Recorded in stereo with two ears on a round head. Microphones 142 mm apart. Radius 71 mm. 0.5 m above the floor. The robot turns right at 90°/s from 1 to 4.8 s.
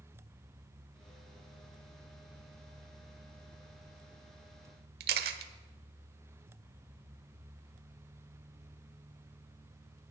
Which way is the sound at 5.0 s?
65° right (ahead or behind).